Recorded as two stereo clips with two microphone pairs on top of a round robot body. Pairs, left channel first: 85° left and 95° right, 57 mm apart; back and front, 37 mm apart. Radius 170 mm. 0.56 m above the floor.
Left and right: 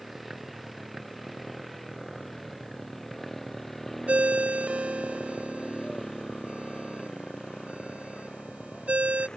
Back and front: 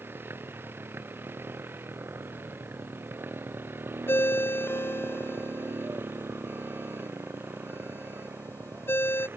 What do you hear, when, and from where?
0.0 s a motorcycle: 10° right; by 9.4 s 5° left
4.1 s a ringtone: 165° right